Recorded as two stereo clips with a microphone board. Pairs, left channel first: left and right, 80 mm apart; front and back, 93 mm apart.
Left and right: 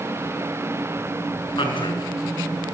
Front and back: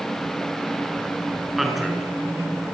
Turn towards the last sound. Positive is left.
turn(degrees=90)